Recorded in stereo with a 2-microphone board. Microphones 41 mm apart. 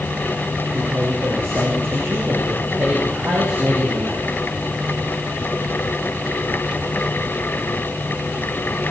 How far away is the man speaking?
About 7 m.